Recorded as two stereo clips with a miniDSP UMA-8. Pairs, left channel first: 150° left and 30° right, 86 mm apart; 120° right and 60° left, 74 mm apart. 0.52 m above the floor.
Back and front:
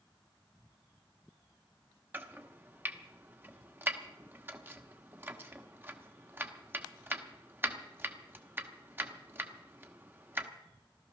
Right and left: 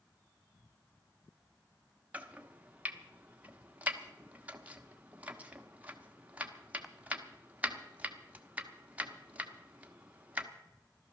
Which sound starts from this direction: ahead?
Chopping, at 2.1 s.